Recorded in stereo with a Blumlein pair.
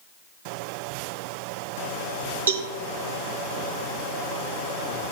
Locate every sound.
2.5 s a cowbell: 70° right, 1.1 m